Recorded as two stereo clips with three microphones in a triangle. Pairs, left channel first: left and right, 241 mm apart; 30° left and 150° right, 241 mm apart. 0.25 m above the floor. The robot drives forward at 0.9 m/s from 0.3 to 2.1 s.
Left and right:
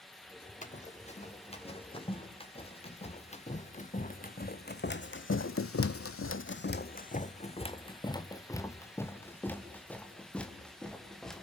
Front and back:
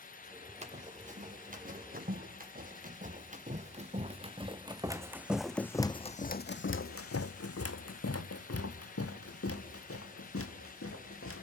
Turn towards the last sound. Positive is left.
turn(degrees=0)